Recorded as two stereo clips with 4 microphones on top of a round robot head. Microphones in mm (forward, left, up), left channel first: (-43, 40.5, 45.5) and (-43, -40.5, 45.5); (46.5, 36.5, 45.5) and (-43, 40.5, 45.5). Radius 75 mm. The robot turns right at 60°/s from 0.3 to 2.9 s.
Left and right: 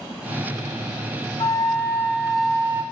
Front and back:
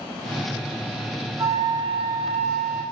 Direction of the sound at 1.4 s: 120° left.